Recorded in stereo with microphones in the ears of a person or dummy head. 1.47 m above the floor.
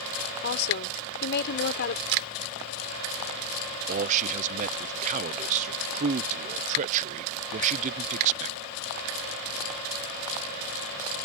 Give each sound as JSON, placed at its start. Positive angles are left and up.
{"t": 0.4, "sound": "a woman speaking", "side_deg": 60}
{"t": 2.1, "sound": "a camera shutter", "side_deg": -65}
{"t": 3.9, "sound": "a man speaking", "side_deg": -40}